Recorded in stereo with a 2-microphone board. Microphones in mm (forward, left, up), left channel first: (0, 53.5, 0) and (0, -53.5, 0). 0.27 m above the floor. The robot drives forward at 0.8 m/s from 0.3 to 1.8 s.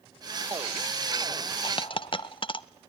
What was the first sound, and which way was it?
A dropped coin, 50° left (ahead or behind).